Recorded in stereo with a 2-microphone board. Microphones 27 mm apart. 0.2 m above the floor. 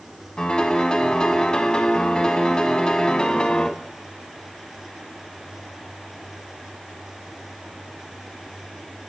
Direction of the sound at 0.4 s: 35° left (ahead or behind).